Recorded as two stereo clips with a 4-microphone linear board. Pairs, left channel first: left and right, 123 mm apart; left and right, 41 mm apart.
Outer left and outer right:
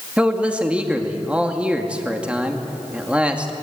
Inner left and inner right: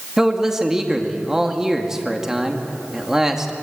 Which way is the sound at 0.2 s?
10° right (ahead or behind).